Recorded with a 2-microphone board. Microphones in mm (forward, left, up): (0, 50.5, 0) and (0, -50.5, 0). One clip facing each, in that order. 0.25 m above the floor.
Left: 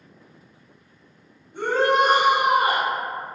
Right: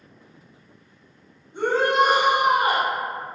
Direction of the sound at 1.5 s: 25° right (ahead or behind).